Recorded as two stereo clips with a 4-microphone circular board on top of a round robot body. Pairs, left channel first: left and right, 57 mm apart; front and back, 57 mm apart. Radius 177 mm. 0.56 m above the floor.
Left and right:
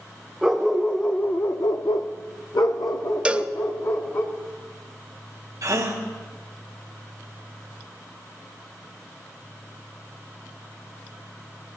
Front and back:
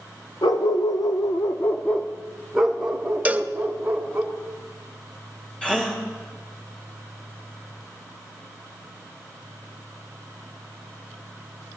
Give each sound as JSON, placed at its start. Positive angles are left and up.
{"t": 0.4, "sound": "a dog barking", "azimuth_deg": -10, "distance_m": 1.0}
{"t": 3.2, "sound": "a cowbell", "azimuth_deg": -145, "distance_m": 0.9}
{"t": 5.6, "sound": "a gasp", "azimuth_deg": -75, "distance_m": 2.5}